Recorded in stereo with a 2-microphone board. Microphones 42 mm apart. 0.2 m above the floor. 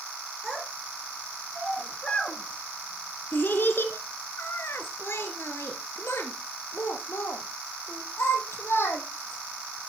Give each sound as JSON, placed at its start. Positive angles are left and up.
{"t": 0.4, "sound": "a child speaking", "side_deg": -10, "distance_m": 1.6}